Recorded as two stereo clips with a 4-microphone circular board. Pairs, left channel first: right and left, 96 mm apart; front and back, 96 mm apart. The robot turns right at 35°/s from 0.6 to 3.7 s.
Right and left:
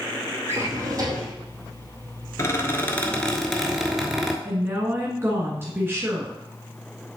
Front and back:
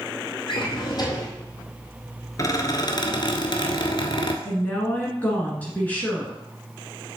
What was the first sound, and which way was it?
A drawer, 25° left.